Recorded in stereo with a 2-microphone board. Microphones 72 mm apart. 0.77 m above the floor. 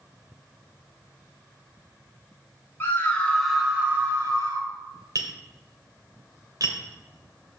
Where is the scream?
30° left (ahead or behind), 2 m; by 4.7 s 55° right (ahead or behind), 2 m.